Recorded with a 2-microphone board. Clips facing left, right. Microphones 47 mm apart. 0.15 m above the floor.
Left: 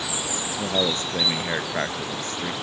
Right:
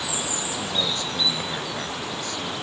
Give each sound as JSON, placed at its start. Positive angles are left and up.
{"t": 0.6, "sound": "a man speaking", "side_deg": 40}